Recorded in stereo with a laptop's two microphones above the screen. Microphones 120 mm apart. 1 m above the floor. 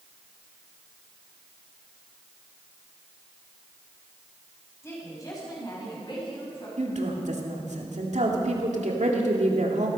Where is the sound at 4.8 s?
25° left (ahead or behind), 5.5 m; by 6.7 s 50° left (ahead or behind), 6.5 m.